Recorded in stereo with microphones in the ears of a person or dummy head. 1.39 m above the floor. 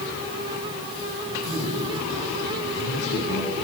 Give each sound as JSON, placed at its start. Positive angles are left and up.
{"t": 1.3, "sound": "a man speaking", "side_deg": 75, "distance_m": 9.5}